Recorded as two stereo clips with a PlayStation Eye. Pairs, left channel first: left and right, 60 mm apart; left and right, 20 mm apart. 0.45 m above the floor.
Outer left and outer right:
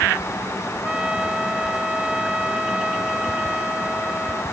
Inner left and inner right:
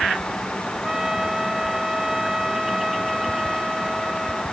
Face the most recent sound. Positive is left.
turn(degrees=-15)  # may be behind; listen again after turning